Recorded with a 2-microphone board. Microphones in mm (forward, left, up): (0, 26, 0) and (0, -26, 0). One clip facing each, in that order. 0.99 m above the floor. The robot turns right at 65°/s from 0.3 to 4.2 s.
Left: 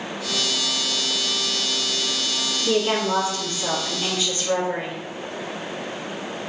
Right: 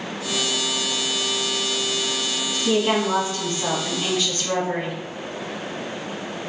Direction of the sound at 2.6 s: 155° right.